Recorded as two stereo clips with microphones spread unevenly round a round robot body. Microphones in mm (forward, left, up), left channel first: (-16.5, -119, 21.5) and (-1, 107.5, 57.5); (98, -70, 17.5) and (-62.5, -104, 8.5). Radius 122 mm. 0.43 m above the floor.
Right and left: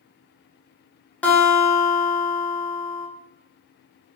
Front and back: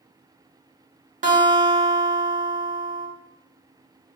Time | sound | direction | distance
1.2 | a guitar | 170° right | 0.8 m